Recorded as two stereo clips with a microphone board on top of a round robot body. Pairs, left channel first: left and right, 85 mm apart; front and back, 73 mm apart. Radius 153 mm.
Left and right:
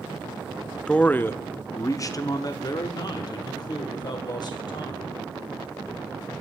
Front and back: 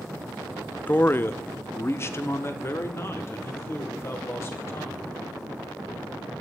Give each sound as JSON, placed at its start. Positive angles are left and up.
{"t": 0.9, "sound": "a man speaking", "azimuth_deg": 20, "distance_m": 0.7}